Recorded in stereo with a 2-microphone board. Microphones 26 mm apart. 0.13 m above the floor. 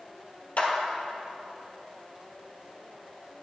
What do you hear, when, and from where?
0.6 s a clap: 60° left (ahead or behind), 2 m